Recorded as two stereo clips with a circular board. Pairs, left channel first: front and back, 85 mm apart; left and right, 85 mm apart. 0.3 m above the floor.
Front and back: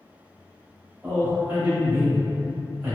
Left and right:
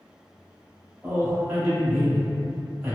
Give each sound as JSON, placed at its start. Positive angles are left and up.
{"t": 1.0, "sound": "a man speaking", "azimuth_deg": -125, "distance_m": 1.0}